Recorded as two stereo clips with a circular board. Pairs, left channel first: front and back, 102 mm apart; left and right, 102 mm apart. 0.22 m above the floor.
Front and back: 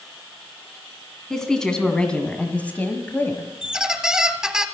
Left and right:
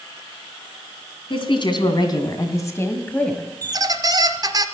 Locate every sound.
1.3 s a woman speaking: 85° left, 2.5 m; by 3.5 s 15° left, 1.5 m
3.6 s a squeak: 100° right, 0.9 m